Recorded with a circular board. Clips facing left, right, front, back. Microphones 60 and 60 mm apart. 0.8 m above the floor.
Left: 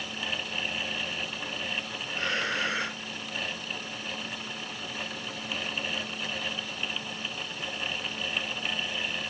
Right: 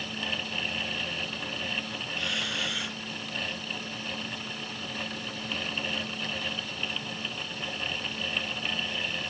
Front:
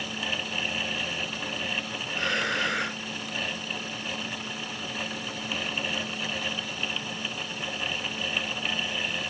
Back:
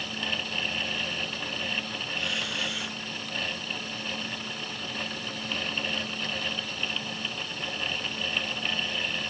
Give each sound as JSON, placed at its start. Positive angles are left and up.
{"t": 2.1, "sound": "breathing", "azimuth_deg": 40}